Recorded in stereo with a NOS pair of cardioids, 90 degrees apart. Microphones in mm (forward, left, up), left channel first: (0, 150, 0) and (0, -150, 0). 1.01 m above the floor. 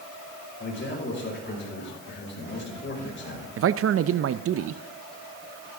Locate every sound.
0.6 s a man speaking: 35° left, 5.5 m
3.6 s a man speaking: 45° right, 0.6 m